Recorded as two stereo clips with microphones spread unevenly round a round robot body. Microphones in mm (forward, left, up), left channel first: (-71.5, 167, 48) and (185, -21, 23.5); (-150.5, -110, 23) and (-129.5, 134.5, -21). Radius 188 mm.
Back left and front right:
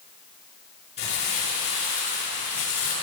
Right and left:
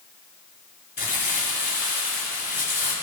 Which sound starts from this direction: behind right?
Crumpling, at 1.0 s.